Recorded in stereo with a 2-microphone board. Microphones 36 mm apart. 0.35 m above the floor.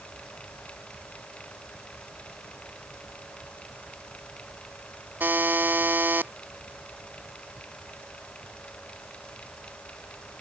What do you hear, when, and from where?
5.2 s a buzzer: 65° right (ahead or behind)